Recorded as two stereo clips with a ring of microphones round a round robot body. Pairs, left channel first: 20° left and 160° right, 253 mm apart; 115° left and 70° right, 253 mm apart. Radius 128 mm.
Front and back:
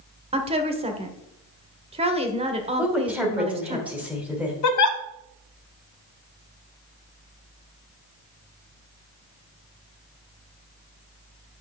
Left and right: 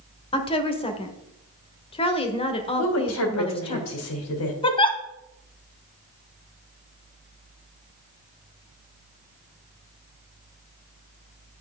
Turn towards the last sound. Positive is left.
turn(degrees=40)